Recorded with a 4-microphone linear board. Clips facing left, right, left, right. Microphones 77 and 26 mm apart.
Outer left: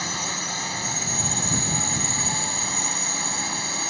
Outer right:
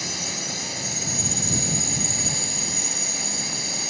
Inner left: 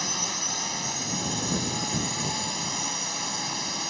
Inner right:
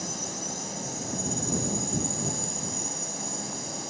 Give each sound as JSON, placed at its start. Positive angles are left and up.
{"t": 0.0, "sound": "a drone", "side_deg": 50}